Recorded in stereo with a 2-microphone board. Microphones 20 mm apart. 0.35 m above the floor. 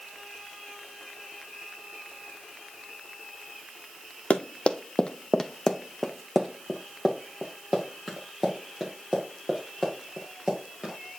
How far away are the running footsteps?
About 0.8 m.